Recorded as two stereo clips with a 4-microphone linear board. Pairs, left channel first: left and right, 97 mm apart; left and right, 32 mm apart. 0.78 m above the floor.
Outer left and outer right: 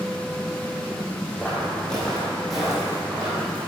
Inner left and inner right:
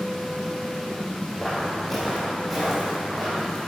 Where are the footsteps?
10° left (ahead or behind), 2.0 m; by 3.6 s 10° right (ahead or behind), 2.5 m.